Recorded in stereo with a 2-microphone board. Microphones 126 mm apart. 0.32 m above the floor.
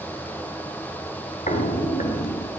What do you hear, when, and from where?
1.5 s footsteps: 80° left, 2 m; by 2.5 s 70° left (ahead or behind), 2.5 m